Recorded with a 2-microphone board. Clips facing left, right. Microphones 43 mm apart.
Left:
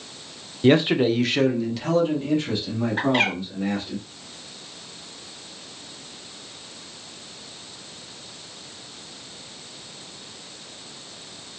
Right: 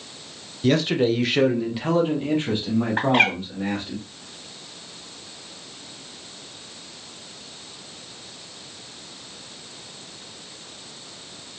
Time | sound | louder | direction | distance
0.6 | a man speaking | left 2 dB | 30° left (ahead or behind) | 0.5 m
3.0 | a bird | right 2 dB | 50° right (ahead or behind) | 2.5 m